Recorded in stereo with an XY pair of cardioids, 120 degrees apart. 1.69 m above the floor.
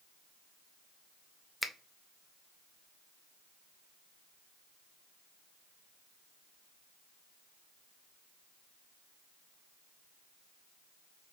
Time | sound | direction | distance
1.6 | a finger snap | 10° left | 0.5 m